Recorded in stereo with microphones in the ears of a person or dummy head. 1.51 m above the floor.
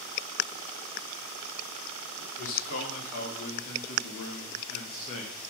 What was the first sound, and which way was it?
A man speaking, 70° left (ahead or behind).